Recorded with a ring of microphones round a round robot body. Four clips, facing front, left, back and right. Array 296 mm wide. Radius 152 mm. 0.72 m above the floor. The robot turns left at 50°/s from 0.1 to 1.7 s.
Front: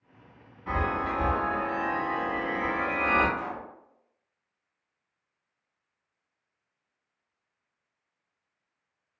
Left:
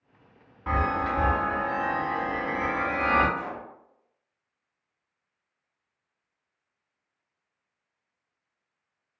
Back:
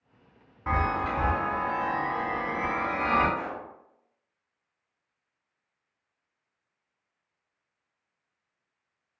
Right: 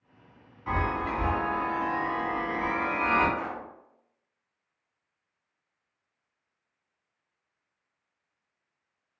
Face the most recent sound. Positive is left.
turn(degrees=-155)